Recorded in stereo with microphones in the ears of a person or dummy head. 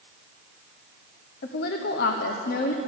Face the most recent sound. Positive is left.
turn(degrees=60)  # may be behind; listen again after turning